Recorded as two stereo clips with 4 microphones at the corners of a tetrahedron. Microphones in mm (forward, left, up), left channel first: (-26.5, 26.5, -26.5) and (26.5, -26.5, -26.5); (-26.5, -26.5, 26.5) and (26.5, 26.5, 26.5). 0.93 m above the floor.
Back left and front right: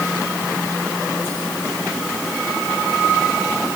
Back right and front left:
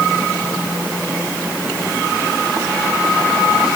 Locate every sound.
Only background noise.